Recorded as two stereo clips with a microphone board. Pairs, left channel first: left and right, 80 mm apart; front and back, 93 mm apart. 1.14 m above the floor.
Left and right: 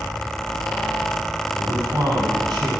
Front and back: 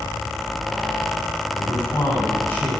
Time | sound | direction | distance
1.5 | a man speaking | 65° right | 6.5 m